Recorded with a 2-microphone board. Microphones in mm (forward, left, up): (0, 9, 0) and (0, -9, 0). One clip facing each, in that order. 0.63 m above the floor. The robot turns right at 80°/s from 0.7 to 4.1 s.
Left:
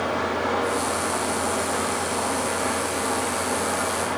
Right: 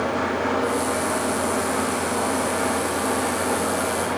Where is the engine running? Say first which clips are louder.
Right 1 dB; 90° left, 5.5 m; by 4.2 s 5° left, 5.5 m.